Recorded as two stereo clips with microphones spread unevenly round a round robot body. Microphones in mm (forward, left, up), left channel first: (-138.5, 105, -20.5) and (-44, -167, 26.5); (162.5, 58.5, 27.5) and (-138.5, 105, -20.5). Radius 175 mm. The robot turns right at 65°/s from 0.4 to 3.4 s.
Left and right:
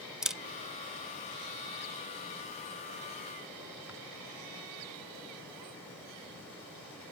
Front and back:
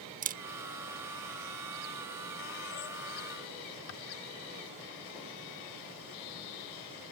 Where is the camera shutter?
170° right; by 4.0 s 25° left.